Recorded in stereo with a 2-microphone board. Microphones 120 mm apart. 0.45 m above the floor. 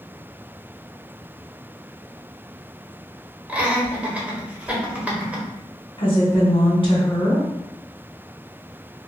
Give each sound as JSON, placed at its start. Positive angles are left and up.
{"t": 3.5, "sound": "laughter", "side_deg": -10, "distance_m": 1.4}
{"t": 6.0, "sound": "a woman speaking", "side_deg": 45, "distance_m": 1.4}